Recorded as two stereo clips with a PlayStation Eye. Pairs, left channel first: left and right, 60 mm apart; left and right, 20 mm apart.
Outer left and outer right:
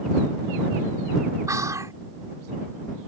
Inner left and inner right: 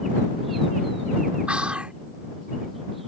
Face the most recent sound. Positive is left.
turn(degrees=-65)  # may be behind; listen again after turning